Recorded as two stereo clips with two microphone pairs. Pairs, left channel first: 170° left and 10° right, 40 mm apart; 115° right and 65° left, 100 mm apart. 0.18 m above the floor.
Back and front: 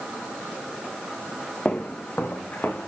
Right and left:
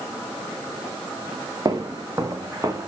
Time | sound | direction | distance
1.6 | footsteps | 120° left | 2 m